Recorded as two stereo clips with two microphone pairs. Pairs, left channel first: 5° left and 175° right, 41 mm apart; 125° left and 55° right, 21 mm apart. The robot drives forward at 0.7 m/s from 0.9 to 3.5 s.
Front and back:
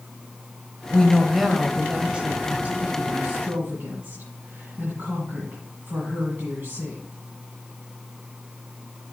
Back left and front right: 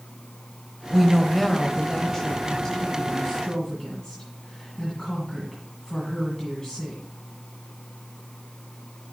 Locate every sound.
0.9 s a woman speaking: 20° left, 1.0 m; by 7.0 s 175° left, 1.7 m